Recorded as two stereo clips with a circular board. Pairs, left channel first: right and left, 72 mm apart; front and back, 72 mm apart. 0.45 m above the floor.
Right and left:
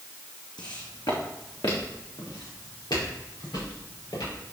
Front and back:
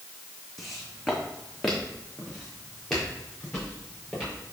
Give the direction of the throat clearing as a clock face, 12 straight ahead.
No throat clearing in this recording.